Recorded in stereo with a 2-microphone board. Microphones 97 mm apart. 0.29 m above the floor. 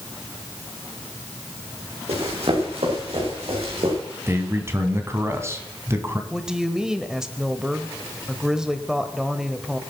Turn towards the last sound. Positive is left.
turn(degrees=-5)  # may be behind; listen again after turning